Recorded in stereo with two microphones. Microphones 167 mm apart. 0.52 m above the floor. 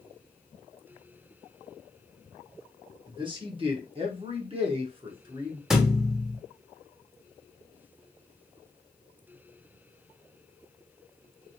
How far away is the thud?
About 0.6 m.